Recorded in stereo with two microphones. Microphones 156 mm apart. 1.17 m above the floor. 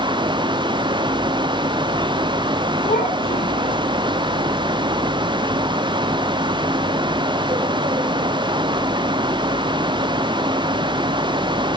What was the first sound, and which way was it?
A child speaking, 35° left (ahead or behind).